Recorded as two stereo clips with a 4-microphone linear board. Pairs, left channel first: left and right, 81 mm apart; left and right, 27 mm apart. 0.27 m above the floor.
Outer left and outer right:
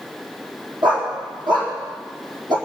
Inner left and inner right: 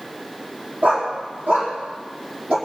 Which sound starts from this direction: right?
A dog barking, at 0.8 s.